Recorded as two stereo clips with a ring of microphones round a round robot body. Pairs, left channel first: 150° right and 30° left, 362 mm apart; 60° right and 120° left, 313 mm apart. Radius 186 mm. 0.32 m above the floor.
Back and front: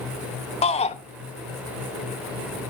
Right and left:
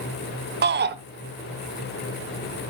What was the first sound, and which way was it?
A shout, 150° left.